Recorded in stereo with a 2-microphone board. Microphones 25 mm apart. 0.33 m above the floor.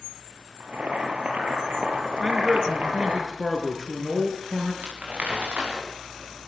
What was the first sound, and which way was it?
Boiling, 80° right.